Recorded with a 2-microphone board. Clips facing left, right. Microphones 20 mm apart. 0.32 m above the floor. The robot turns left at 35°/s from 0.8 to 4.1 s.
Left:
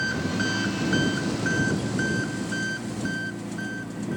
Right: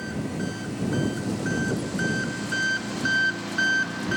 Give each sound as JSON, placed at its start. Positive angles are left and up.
{"t": 0.0, "sound": "an engine running", "azimuth_deg": 45}